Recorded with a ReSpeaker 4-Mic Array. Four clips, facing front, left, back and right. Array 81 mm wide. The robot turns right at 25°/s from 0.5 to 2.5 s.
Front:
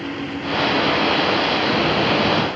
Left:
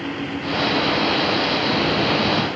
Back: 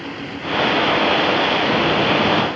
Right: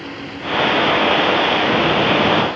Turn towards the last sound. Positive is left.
No sound to turn to.